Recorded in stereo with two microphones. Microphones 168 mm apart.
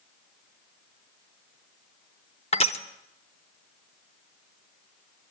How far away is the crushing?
About 0.8 m.